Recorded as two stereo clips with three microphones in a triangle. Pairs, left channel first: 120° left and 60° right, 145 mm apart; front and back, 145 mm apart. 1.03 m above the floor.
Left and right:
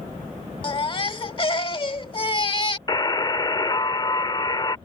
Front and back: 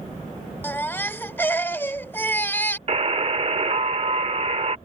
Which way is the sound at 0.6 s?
75° left.